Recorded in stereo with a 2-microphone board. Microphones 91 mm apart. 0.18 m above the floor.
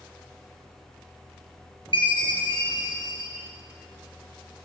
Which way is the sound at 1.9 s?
60° left (ahead or behind).